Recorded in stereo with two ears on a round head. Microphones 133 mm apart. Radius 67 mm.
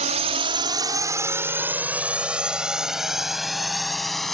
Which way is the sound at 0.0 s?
50° right (ahead or behind).